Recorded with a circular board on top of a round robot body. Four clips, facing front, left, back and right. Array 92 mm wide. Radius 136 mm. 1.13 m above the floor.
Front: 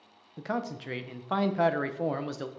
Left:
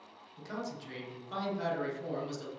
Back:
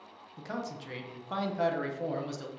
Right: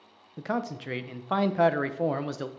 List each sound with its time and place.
0.4 s a man speaking: 60° right, 0.6 m